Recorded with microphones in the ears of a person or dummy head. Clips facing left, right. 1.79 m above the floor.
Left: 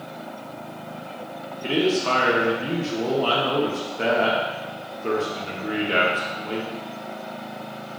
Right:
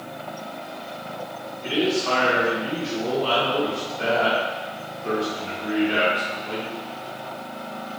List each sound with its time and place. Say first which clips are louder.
1.6 s a man speaking: left 1 dB; 45° left (ahead or behind), 0.9 m